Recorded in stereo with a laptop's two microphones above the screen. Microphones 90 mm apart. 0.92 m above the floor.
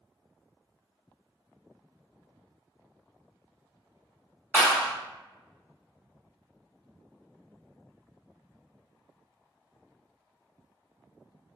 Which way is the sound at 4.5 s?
10° left (ahead or behind).